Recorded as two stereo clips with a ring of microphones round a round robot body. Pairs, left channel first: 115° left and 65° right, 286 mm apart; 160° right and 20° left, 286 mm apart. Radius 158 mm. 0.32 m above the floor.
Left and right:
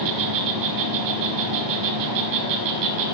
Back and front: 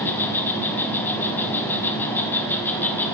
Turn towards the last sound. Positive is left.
turn(degrees=-75)